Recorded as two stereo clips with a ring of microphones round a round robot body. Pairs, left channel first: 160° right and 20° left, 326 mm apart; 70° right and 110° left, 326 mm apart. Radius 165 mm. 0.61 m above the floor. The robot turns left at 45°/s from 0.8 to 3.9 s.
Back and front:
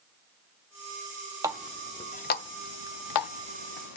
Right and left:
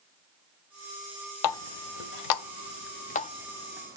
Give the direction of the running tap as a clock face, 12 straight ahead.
2 o'clock.